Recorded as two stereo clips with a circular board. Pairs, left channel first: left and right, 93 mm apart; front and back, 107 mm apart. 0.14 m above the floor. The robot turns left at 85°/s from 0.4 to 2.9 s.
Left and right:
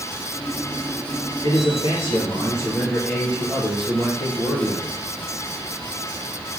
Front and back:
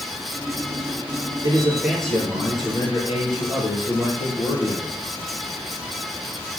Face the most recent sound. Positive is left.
turn(degrees=10)